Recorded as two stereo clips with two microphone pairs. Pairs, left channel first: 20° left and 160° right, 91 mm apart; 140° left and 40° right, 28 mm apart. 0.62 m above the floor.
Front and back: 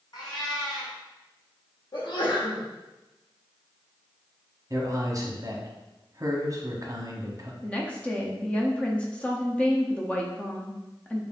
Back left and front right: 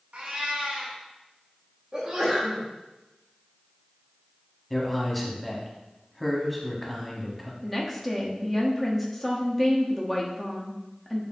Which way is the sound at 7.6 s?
65° left.